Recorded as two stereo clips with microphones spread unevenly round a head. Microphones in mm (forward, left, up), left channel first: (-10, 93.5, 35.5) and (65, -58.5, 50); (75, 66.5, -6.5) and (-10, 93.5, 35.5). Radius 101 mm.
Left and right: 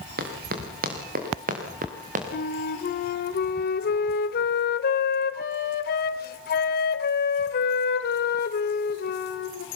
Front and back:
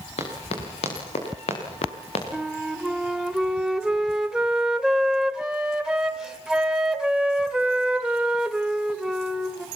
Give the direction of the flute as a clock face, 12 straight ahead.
9 o'clock.